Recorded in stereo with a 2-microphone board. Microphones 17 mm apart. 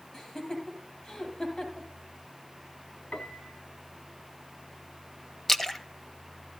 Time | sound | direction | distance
0.1 | laughter | 25° left (ahead or behind) | 7.5 m
3.1 | a piano | 65° left (ahead or behind) | 1.8 m
5.5 | a splash | 10° left (ahead or behind) | 1.4 m